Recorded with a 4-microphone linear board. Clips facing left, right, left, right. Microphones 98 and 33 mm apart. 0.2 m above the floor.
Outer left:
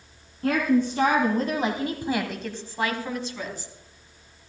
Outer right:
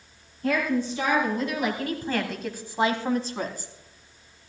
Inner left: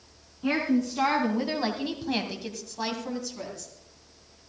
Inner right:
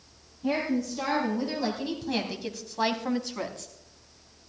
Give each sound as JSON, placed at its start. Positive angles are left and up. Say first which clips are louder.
{"t": 0.4, "sound": "a woman speaking", "louder": "outer left 3 dB, inner left 2 dB", "side_deg": 60, "distance_m": 3.0}